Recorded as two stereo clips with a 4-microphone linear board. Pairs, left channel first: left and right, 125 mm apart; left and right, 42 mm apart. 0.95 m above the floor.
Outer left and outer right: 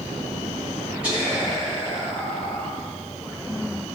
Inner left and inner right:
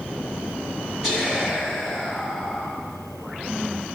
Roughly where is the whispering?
Centre.